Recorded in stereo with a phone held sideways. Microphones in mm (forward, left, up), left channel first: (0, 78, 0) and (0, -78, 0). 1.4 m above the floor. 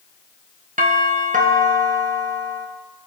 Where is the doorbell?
55° right (ahead or behind), 1.5 m.